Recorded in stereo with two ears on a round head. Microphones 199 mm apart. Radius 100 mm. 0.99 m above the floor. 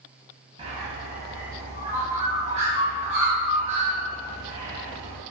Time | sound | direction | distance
0.6 | a bird | 30° right (ahead or behind) | 0.9 m